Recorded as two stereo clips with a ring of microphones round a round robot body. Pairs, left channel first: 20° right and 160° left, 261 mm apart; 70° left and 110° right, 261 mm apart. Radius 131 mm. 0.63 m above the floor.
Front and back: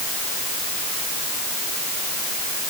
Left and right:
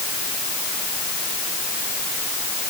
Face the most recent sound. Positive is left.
No sound to turn to.